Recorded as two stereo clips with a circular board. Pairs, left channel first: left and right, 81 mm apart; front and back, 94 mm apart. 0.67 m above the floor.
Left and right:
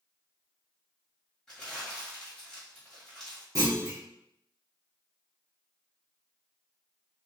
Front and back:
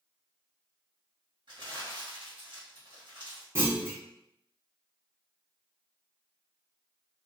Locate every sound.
1.5 s crumpling: 175° left, 1.6 m
3.5 s a clunk: 125° right, 1.1 m